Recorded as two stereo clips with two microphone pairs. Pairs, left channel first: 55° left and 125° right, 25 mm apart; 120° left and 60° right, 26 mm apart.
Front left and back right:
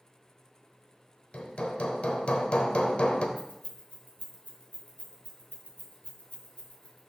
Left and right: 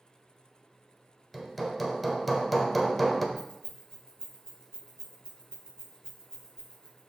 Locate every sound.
1.3 s hammering: 25° left, 0.8 m
3.4 s keys jangling: 55° left, 2.5 m